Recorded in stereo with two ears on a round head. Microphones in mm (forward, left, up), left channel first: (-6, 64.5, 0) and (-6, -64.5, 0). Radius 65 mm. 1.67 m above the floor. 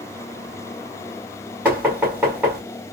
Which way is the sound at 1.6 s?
10° right (ahead or behind).